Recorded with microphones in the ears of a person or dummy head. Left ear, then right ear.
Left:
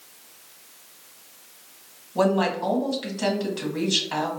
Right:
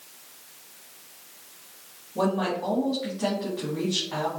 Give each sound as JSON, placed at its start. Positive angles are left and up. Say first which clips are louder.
{"t": 2.1, "sound": "a woman speaking", "louder": "left 4 dB", "side_deg": 75, "distance_m": 1.6}